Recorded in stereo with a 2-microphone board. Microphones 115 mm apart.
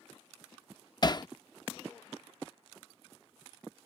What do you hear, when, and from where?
1.0 s hammering: 40° left (ahead or behind)